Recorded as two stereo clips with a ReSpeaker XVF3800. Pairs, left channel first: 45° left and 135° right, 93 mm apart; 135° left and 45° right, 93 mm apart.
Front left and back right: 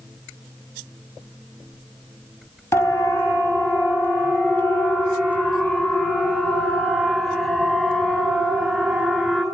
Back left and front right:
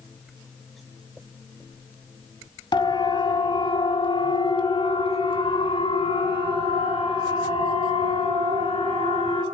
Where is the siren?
105° left, 3 m; by 9.4 s 125° left, 6.5 m.